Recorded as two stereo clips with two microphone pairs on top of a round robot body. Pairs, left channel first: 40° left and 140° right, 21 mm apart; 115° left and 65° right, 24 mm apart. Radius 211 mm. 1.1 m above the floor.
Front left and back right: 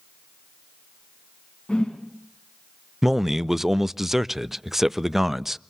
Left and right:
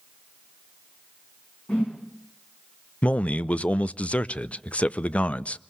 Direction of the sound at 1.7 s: 75° left.